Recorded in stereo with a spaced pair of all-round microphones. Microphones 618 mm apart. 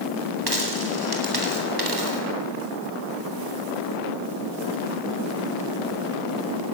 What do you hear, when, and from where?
0.5 s a dropped coin: 35° right (ahead or behind), 3.5 m